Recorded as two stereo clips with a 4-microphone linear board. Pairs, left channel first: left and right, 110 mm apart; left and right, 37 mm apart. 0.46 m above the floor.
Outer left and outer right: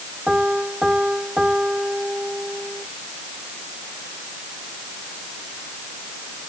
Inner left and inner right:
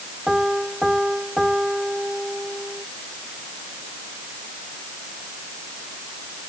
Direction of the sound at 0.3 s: 5° right (ahead or behind).